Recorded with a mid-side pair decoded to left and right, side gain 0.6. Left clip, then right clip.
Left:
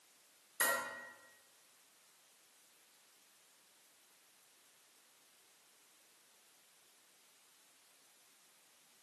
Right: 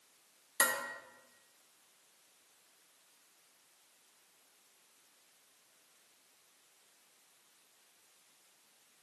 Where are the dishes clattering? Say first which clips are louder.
Right 3 dB; 65° right, 1.7 m.